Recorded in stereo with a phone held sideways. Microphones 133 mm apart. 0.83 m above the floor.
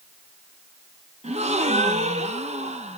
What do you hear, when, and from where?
1.2 s a gasp: 55° right (ahead or behind), 1.0 m